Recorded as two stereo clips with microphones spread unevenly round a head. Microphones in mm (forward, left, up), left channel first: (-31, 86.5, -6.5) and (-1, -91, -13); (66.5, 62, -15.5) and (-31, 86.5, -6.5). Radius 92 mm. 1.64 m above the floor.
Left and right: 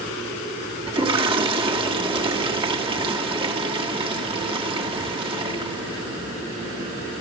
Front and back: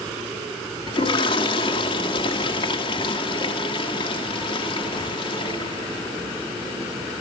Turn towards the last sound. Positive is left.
turn(degrees=-25)